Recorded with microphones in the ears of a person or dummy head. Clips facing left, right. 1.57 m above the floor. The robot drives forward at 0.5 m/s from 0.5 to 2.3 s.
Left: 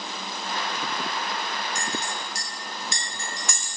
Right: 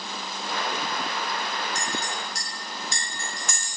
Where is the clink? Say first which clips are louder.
Even; 50° left (ahead or behind), 1.3 m; by 3.7 s 45° left (ahead or behind), 1.4 m.